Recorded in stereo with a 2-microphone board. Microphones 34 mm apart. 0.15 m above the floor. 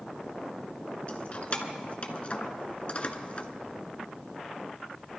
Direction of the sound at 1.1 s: 40° left (ahead or behind).